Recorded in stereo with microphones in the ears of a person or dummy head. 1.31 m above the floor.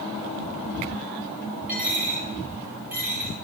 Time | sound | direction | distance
1.7 | a dropped coin | 10° right (ahead or behind) | 6 m